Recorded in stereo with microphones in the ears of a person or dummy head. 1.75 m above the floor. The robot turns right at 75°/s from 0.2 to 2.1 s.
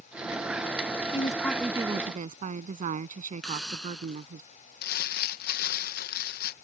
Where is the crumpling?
55° left (ahead or behind).